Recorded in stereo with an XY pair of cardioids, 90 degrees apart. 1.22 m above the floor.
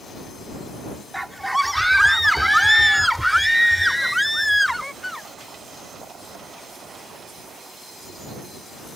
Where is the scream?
5° right; by 5.3 s 5° left.